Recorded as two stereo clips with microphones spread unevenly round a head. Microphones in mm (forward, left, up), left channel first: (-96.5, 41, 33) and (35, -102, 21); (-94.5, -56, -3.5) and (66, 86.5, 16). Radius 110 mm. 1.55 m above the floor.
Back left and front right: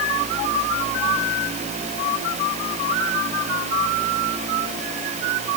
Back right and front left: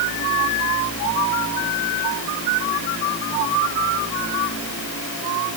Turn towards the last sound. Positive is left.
No sound to turn to.